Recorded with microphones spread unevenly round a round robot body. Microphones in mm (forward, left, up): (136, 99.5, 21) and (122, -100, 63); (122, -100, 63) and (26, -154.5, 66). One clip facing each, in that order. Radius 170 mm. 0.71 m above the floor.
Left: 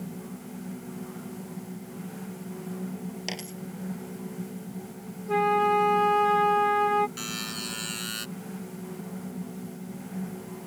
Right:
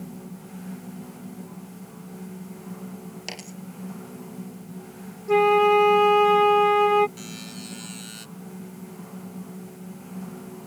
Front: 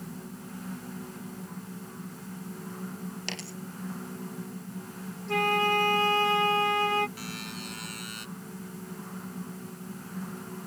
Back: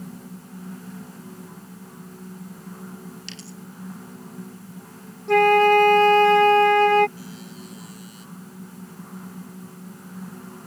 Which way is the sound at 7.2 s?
75° left.